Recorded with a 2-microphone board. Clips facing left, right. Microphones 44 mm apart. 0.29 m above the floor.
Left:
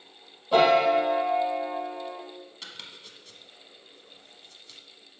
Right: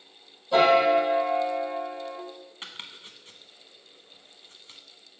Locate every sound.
0.5 s a piano: 20° left (ahead or behind), 1.7 m
2.6 s chopping: 35° right (ahead or behind), 0.6 m